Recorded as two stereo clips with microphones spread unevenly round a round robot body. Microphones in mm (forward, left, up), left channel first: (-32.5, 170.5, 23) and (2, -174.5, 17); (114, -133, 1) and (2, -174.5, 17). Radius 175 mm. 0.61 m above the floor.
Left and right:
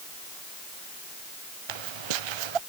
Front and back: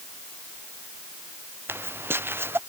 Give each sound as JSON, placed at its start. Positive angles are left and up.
{"t": 1.7, "sound": "footsteps", "azimuth_deg": -90}